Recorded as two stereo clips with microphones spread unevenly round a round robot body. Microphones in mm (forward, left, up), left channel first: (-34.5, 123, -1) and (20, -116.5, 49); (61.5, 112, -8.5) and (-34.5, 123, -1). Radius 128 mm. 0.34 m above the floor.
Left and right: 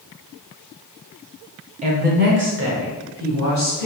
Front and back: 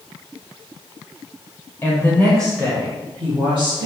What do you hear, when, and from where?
1.8 s a woman speaking: 25° right, 1.1 m; by 3.9 s 115° right, 2 m